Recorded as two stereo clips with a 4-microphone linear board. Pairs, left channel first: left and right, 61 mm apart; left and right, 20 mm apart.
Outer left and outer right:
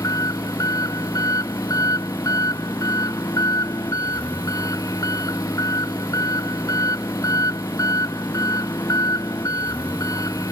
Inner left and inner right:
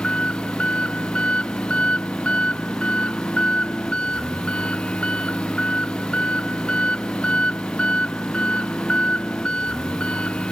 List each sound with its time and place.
0.0 s an engine running: 70° left (ahead or behind)